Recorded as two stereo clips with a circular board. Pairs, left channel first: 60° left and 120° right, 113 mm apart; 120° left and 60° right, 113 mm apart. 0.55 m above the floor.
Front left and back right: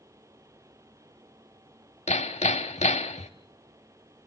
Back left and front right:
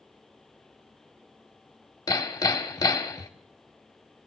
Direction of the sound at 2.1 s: 65° left.